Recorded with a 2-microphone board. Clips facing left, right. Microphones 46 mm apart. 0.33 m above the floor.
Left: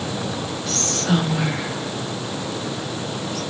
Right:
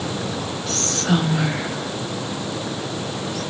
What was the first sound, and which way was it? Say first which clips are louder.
Whispering: even; 20° right (ahead or behind).